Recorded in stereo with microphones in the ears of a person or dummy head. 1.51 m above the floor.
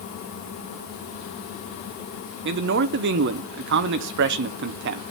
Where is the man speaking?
60° right (ahead or behind), 1.1 m.